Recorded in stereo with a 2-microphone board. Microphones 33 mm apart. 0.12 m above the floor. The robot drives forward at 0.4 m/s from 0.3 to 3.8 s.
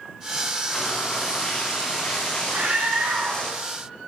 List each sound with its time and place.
0.7 s frying: 20° left (ahead or behind), 3.5 m; by 3.5 s 30° left (ahead or behind), 2.5 m
2.5 s a scream: 75° right (ahead or behind), 4.5 m